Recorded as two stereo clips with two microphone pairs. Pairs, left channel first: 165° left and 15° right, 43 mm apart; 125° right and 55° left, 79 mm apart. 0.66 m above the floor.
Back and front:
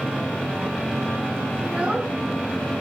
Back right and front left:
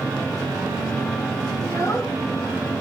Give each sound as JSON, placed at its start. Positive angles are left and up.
{"t": 1.6, "sound": "a child speaking", "azimuth_deg": -75, "distance_m": 5.0}